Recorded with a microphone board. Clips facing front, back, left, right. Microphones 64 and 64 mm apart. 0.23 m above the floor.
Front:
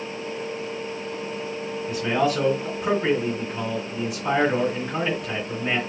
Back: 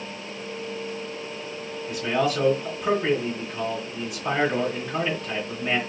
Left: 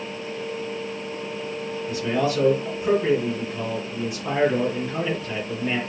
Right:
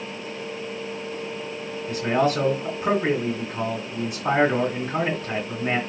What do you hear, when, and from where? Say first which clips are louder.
1.9 s a man speaking: front 1 dB, right 2 dB; 90° right, 2 m